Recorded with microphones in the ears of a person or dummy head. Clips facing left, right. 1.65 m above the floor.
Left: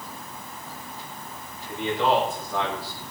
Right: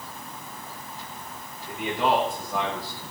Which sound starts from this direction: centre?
A man speaking, at 1.7 s.